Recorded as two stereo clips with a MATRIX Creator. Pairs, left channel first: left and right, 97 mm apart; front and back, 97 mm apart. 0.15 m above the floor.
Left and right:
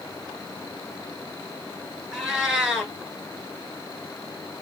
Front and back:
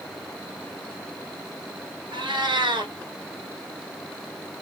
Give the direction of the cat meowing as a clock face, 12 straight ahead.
6 o'clock.